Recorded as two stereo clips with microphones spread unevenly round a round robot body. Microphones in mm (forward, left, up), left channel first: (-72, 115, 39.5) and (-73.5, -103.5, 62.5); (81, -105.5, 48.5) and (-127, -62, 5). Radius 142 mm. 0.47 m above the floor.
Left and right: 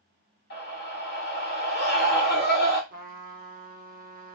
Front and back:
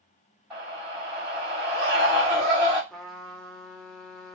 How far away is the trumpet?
About 0.8 m.